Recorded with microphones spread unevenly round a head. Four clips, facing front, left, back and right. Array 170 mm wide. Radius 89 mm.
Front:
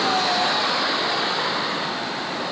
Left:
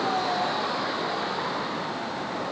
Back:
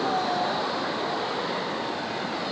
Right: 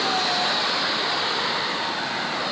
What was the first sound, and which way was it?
Only background noise.